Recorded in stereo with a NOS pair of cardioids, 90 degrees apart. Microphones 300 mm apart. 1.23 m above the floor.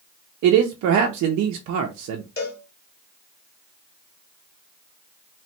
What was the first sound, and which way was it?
A man speaking, 65° right.